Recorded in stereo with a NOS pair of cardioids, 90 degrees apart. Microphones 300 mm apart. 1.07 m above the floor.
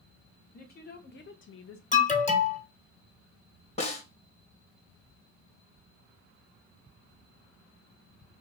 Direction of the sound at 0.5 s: 30° left.